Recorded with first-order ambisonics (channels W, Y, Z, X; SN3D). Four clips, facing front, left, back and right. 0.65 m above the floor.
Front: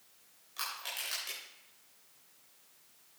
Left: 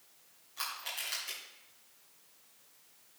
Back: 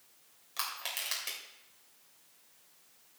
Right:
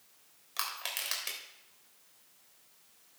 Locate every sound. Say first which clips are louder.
0.6 s crushing: right 2 dB, back 2 dB; 115° right, 3 m